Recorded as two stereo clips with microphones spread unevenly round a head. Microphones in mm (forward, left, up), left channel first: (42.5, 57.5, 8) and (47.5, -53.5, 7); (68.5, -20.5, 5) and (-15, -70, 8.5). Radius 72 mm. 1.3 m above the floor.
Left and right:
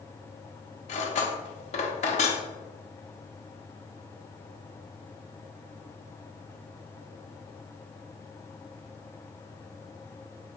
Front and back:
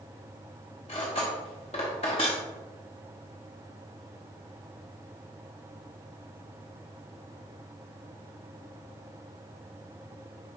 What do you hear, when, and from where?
0.9 s cutlery clinking: 80° left, 1.1 m